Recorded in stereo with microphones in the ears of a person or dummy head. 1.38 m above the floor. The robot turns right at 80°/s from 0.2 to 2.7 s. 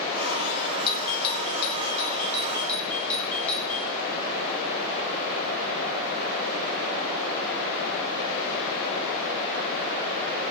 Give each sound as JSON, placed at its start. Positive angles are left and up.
{"t": 0.9, "sound": "a doorbell", "side_deg": 25, "distance_m": 2.5}